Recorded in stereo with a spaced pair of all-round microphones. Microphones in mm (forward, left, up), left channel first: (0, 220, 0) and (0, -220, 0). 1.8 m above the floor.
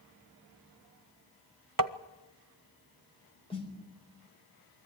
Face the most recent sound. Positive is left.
turn(degrees=10)  # may be behind; listen again after turning